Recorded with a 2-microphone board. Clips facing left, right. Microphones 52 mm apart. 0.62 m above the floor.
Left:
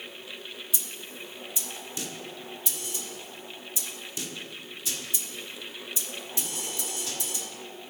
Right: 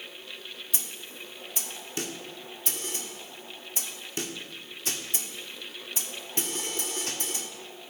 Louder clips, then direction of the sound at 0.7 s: Left 1 dB; 50° right (ahead or behind).